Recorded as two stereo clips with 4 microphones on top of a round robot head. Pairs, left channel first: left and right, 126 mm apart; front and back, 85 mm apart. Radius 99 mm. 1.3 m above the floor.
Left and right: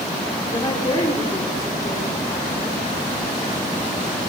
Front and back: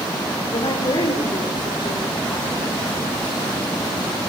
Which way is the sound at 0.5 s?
25° left.